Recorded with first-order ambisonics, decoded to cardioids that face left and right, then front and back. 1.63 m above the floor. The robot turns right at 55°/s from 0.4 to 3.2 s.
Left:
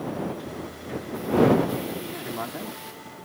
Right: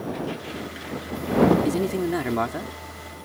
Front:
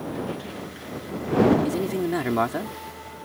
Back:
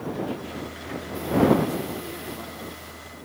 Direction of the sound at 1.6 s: 70° right.